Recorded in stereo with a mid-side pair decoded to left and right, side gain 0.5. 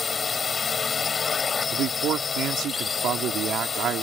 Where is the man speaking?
60° right.